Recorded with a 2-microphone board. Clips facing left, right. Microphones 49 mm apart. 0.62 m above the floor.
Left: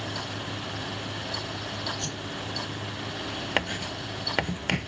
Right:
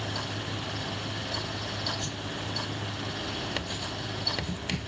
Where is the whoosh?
60° left (ahead or behind).